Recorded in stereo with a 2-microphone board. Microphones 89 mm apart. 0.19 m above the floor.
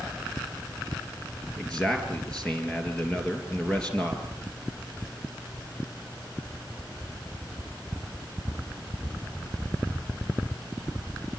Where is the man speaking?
10° left (ahead or behind), 4 m.